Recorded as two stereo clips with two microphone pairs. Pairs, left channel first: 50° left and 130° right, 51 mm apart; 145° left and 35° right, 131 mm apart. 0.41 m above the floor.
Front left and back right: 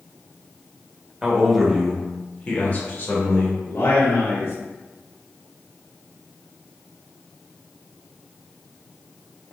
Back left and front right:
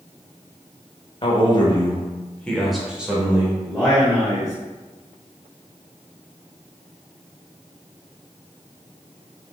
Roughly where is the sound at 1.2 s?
Behind.